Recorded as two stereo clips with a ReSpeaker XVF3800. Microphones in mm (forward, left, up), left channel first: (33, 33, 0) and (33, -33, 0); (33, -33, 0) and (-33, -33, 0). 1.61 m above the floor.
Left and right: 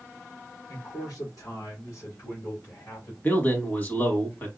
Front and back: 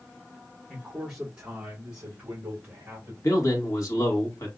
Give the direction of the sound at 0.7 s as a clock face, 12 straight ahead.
8 o'clock.